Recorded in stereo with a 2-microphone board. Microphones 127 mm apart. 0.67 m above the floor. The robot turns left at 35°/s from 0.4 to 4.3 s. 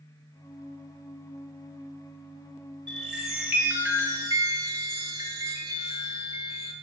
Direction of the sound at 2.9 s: 5° left.